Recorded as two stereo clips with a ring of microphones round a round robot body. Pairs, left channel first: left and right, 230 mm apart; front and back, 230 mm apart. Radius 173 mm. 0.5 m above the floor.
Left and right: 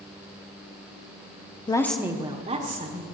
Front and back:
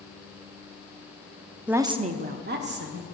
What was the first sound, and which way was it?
A woman speaking, 105° left.